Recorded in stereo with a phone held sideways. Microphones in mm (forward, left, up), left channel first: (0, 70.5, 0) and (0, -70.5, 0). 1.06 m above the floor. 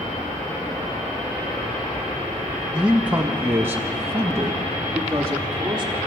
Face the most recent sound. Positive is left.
turn(degrees=-25)  # may be behind; listen again after turning